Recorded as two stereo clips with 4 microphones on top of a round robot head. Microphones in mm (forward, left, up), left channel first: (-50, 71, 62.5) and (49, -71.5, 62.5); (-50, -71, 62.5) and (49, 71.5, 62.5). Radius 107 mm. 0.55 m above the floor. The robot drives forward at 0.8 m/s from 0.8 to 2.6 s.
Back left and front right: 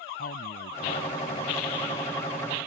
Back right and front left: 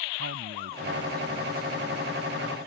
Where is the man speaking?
85° left; by 2.1 s 100° left.